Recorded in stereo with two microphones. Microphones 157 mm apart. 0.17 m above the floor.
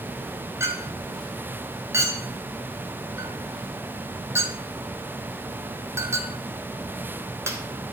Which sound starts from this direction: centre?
A clink, at 0.6 s.